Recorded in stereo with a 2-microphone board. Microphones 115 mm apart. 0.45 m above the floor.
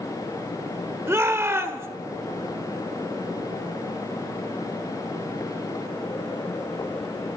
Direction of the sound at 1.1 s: 20° right (ahead or behind).